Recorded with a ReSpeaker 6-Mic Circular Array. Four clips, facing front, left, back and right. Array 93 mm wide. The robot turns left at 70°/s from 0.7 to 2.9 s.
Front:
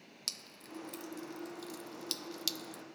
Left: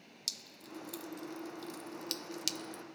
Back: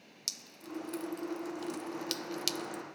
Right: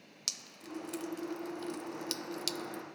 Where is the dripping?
75° right; by 2.8 s 135° left.